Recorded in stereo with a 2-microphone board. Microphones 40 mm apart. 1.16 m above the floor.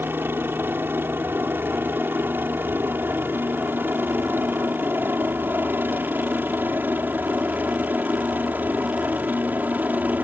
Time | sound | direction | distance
0.0 | a helicopter | 70° right (ahead or behind) | ?